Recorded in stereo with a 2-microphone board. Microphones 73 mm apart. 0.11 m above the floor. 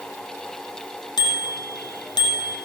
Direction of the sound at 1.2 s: 75° left (ahead or behind).